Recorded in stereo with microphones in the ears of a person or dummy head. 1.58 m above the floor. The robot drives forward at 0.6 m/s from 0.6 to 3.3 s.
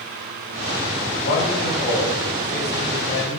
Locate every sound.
1.2 s a man speaking: 60° left (ahead or behind), 9 m; by 3.4 s 70° left (ahead or behind), 8.5 m